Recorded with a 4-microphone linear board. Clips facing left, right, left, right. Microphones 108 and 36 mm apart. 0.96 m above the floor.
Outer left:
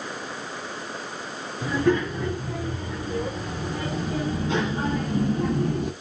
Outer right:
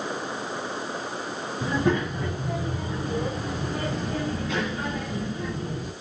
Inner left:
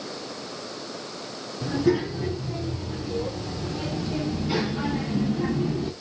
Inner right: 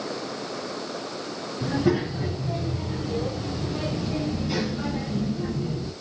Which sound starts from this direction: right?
A child speaking, at 1.6 s.